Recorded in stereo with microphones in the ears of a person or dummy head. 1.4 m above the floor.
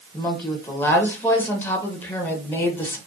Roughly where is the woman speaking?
Centre.